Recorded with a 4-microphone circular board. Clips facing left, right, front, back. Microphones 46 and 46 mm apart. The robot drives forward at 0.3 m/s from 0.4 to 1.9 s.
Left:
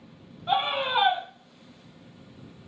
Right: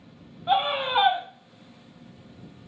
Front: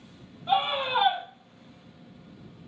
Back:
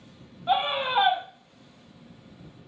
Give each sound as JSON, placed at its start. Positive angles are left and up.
{"t": 0.5, "sound": "a scream", "azimuth_deg": -150, "distance_m": 1.0}